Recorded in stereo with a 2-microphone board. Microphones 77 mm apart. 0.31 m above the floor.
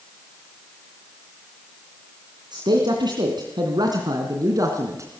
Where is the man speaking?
70° right (ahead or behind), 2.5 m; by 5.2 s 40° right (ahead or behind), 3 m.